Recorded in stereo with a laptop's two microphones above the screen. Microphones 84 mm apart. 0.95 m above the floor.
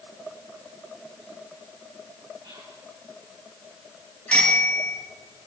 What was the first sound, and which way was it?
Whispering, 65° right (ahead or behind).